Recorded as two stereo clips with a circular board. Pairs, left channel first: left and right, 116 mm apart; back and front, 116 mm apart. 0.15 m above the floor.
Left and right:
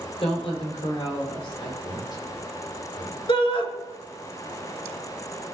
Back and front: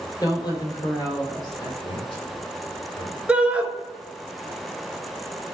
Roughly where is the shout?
Left.